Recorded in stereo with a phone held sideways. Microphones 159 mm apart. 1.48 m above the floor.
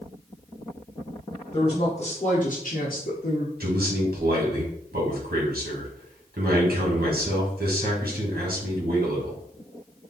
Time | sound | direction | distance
1.5 | a woman speaking | 30° left (ahead or behind) | 1.4 m
3.6 | a man speaking | 70° right (ahead or behind) | 1.8 m